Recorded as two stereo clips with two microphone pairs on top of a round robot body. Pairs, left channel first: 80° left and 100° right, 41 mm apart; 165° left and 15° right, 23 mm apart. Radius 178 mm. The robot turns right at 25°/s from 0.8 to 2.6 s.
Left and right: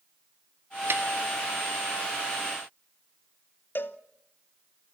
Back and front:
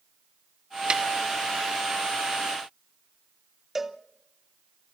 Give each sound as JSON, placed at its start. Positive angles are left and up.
{"t": 0.9, "sound": "a snare drum", "azimuth_deg": -70, "distance_m": 1.4}
{"t": 3.8, "sound": "a cowbell", "azimuth_deg": 65, "distance_m": 1.2}